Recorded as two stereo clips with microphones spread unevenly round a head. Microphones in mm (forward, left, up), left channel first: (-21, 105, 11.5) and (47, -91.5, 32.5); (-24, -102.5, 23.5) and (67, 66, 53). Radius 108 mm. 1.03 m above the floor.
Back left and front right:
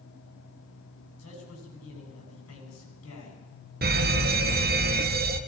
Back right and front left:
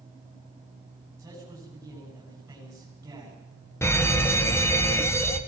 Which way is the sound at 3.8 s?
60° right.